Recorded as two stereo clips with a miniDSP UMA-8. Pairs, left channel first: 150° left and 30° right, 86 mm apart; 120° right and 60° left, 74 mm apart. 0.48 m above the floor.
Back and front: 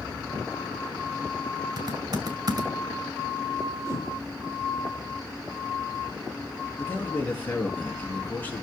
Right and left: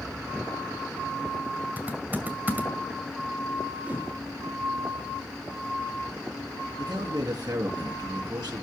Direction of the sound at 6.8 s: 80° left.